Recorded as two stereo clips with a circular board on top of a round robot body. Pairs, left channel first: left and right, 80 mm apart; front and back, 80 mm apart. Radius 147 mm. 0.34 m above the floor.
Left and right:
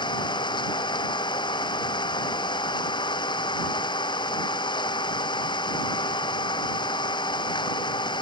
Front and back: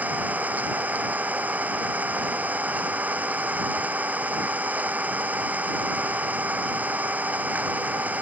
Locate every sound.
0.0 s an engine running: 110° left